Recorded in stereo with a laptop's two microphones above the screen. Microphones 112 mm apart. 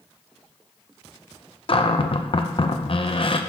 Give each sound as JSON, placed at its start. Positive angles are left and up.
{"t": 1.7, "sound": "a cupboard door", "side_deg": 50, "distance_m": 0.5}